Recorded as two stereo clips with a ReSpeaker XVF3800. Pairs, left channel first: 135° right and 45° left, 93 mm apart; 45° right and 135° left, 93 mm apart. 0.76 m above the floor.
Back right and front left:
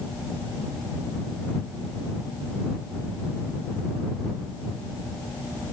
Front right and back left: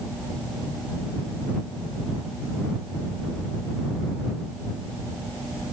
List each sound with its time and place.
Only background noise.